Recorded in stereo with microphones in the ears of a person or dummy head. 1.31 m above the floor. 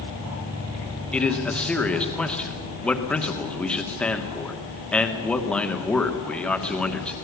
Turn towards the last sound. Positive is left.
turn(degrees=5)  # may be behind; listen again after turning